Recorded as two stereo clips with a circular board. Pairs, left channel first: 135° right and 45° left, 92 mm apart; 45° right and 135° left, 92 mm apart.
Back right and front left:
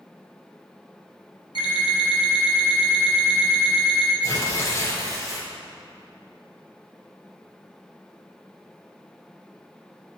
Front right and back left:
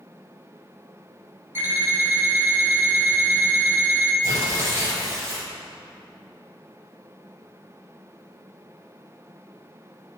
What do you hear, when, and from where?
1.6 s an alarm clock: 160° right, 1.6 m
4.2 s tearing paper: straight behind, 2 m